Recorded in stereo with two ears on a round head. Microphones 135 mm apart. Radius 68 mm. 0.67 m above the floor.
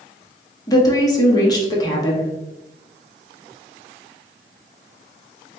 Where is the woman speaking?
25° left (ahead or behind), 1.0 m.